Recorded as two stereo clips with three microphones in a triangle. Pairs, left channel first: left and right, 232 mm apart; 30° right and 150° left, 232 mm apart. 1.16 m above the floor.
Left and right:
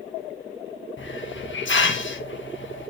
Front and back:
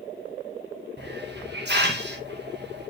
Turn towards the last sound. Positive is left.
turn(degrees=115)